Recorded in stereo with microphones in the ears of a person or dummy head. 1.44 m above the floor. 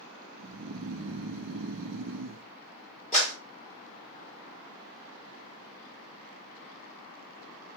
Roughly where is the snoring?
Right.